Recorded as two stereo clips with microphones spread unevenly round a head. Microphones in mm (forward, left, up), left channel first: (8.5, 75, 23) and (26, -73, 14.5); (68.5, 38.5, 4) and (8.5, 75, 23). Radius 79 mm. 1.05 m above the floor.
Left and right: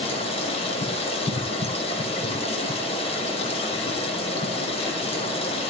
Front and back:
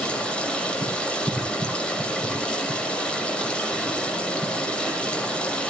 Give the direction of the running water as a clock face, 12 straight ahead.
11 o'clock.